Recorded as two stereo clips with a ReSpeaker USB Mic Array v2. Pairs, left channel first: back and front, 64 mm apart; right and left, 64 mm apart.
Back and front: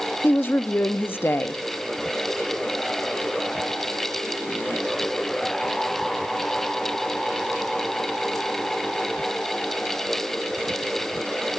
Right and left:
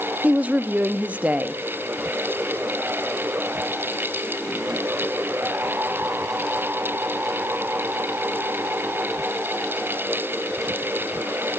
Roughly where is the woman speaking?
Behind left.